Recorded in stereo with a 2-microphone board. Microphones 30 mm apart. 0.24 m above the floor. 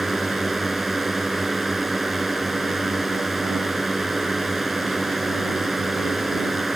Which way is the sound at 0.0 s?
5° right (ahead or behind).